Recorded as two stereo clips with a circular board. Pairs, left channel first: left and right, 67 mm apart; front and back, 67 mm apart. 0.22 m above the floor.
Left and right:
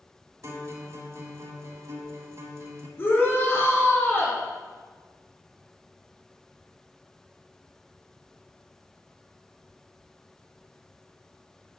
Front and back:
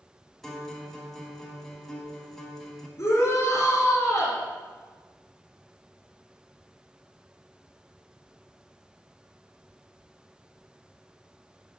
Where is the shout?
35° left, 3 m.